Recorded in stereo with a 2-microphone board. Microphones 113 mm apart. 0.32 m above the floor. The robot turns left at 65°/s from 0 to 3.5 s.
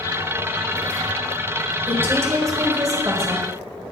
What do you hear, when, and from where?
1.9 s a woman speaking: 15° right (ahead or behind), 1.2 m; by 3.5 s 20° right (ahead or behind), 1.2 m